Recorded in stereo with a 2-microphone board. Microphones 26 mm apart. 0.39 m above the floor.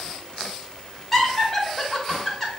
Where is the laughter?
10° left (ahead or behind), 1.6 m.